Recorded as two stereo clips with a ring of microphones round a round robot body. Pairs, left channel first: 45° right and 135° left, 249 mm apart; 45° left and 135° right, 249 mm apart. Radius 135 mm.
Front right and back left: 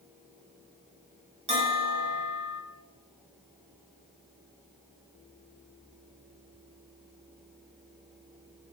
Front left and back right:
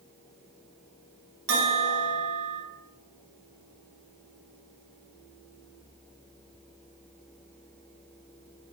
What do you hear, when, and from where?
1.5 s a bell: 160° right, 1.3 m